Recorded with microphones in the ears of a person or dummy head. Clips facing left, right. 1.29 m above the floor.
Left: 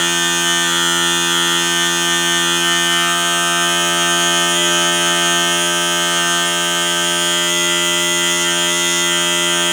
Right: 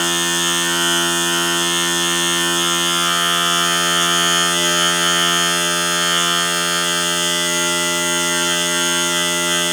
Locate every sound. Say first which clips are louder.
0.0 s a machine running: even; 15° right (ahead or behind), 6.5 m